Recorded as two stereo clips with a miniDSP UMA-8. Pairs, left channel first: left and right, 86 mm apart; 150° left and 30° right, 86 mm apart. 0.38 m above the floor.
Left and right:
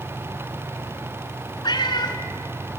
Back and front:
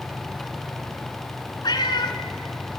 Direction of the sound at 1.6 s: 120° left.